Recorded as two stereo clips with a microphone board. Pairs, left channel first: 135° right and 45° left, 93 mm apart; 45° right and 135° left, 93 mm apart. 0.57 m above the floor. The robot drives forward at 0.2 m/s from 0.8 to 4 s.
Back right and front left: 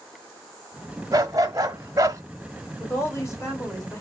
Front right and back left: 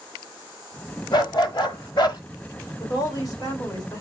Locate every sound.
1.1 s a dog barking: 5° right, 1.0 m; by 2.2 s 10° right, 0.8 m
2.8 s a woman speaking: 80° right, 2 m; by 4.0 s 90° right, 2 m